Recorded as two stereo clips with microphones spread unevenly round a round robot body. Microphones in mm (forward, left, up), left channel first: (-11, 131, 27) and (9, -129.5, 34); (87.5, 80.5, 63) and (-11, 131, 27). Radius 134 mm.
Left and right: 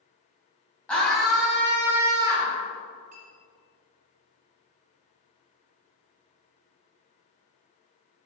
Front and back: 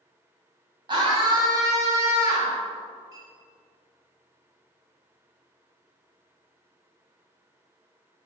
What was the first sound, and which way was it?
A scream, straight behind.